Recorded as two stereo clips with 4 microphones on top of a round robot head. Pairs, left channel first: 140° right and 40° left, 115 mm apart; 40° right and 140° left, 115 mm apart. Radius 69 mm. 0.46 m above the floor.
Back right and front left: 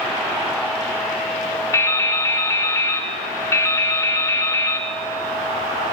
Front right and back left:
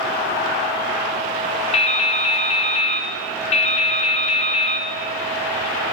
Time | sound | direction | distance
1.7 | dripping | 75° right | 0.6 m